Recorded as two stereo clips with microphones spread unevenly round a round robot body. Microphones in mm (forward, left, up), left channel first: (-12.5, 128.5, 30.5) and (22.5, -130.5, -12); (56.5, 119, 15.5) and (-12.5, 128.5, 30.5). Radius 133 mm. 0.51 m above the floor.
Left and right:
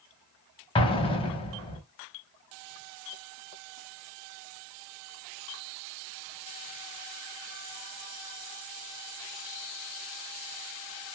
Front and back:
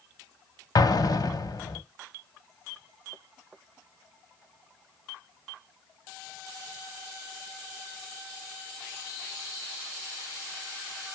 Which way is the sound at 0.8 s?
30° left.